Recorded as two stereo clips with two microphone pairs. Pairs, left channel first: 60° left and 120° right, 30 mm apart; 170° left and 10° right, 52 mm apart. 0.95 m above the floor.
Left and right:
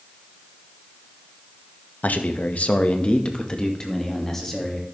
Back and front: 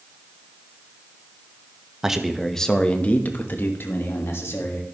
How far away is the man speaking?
About 0.9 m.